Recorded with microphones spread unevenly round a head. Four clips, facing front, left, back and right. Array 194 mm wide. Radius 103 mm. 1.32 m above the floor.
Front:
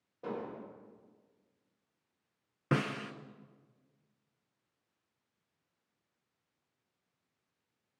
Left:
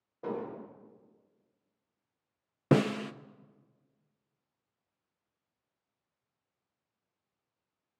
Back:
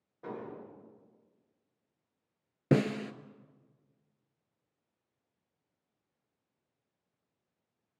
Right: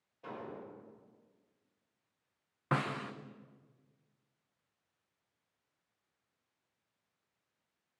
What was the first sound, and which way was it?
An explosion, 80° left.